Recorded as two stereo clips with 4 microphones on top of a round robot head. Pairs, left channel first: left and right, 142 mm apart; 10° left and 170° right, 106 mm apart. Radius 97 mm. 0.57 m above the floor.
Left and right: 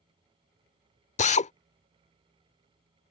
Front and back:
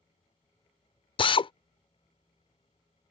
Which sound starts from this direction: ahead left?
A drill, at 1.2 s.